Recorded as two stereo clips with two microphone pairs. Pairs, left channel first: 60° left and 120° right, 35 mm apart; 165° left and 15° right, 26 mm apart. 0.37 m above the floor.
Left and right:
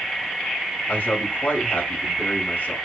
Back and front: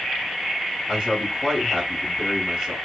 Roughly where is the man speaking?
Ahead left.